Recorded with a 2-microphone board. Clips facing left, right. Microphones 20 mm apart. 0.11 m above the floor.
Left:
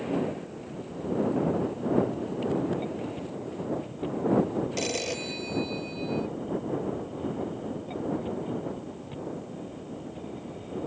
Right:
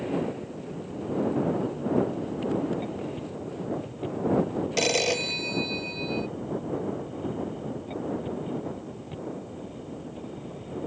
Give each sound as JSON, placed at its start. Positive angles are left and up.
{"t": 4.8, "sound": "a phone ringing", "side_deg": -30}